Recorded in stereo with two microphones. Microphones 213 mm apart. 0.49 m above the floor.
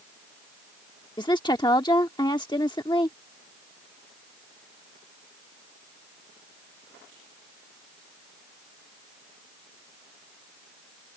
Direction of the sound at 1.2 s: 20° left (ahead or behind).